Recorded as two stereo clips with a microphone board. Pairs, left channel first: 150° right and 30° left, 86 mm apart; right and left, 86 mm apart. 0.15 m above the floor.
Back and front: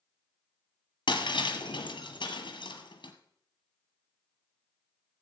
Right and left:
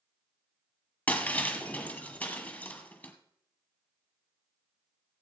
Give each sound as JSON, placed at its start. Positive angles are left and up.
{"t": 1.1, "sound": "breaking glass", "azimuth_deg": -160, "distance_m": 1.4}